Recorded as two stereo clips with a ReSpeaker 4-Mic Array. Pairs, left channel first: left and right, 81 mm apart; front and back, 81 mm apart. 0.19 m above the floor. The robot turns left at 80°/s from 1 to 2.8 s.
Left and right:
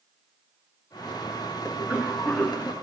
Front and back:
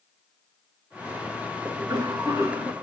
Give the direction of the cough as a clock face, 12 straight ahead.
5 o'clock.